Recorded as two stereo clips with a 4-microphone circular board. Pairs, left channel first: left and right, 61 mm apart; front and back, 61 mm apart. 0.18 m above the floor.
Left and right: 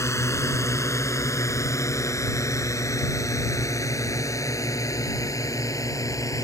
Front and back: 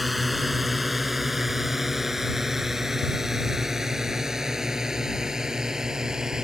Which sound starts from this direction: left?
A drone, at 0.0 s.